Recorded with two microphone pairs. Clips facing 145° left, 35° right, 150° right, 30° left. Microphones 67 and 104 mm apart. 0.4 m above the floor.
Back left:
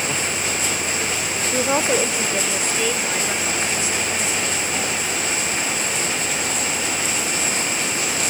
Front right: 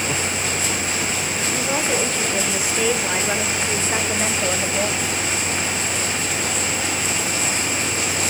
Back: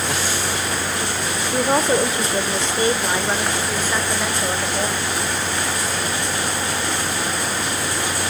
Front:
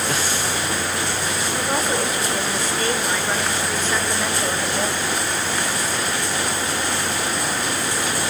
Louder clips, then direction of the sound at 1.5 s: Back left 4 dB, back 7 dB; straight behind.